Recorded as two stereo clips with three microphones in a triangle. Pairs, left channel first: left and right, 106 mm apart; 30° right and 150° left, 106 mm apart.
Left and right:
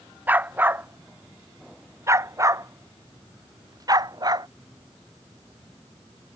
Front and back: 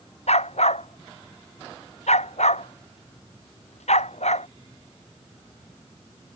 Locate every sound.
0.3 s a dog barking: 15° right; by 4.5 s 35° right